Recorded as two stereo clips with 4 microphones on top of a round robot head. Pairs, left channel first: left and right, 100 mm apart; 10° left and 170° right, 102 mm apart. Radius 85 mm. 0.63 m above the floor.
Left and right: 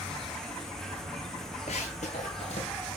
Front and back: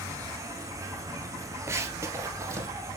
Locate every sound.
0.0 s an insect: 170° left, 1.4 m
1.7 s running footsteps: 135° left, 0.8 m; by 2.7 s 130° left, 2.0 m